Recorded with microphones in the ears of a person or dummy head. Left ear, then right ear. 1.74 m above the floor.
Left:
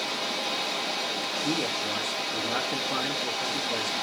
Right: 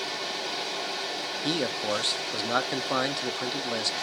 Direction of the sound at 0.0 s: 10° left (ahead or behind).